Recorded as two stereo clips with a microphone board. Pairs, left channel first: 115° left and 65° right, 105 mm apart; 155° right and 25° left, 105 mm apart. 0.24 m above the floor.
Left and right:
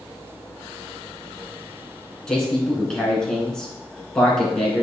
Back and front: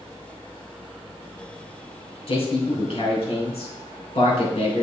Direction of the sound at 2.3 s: 165° right.